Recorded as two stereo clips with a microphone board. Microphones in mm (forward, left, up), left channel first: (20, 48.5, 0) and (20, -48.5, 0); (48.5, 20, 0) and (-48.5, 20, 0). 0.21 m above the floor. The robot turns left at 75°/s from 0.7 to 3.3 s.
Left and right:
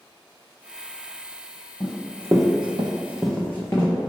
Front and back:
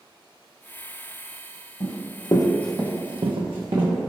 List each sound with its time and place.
1.8 s running footsteps: 25° left, 1.0 m; by 3.9 s 150° left, 0.9 m